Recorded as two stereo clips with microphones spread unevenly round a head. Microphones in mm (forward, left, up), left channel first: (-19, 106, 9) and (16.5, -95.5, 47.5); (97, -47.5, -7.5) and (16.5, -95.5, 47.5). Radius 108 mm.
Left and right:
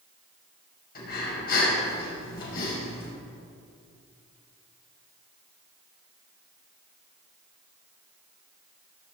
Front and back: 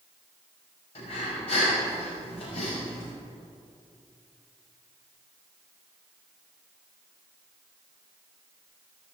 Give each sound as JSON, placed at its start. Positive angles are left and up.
{"t": 0.9, "sound": "breathing", "azimuth_deg": 55, "distance_m": 6.5}